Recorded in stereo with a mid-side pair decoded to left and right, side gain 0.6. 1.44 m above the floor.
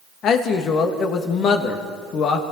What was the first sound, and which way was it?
A man speaking, 55° left.